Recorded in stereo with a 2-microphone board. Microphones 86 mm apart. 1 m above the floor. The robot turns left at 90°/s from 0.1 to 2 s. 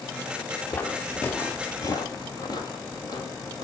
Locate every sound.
0.7 s footsteps: 20° left (ahead or behind), 1.1 m; by 3.6 s 50° left (ahead or behind), 2.5 m